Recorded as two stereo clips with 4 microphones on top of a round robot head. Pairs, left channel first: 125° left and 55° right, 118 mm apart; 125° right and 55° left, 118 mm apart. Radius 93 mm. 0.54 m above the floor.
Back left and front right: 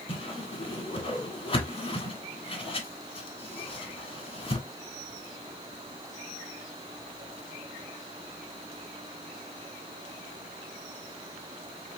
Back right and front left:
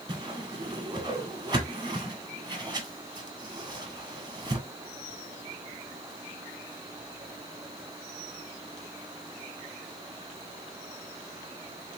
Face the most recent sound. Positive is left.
turn(degrees=100)